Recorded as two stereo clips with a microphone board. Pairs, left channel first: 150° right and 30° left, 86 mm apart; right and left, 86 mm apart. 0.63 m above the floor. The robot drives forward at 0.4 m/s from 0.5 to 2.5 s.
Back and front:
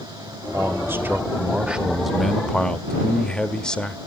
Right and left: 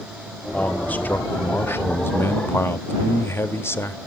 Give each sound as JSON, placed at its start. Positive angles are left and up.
{"t": 0.5, "sound": "a man speaking", "azimuth_deg": -20, "distance_m": 1.1}